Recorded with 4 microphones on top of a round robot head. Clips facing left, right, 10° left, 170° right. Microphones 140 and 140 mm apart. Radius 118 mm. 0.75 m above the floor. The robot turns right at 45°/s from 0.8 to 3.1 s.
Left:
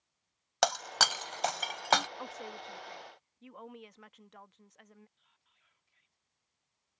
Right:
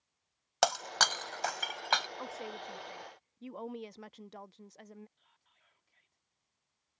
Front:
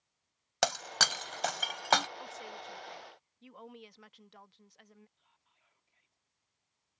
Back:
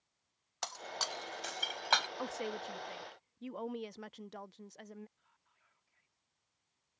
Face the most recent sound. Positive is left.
turn(degrees=-60)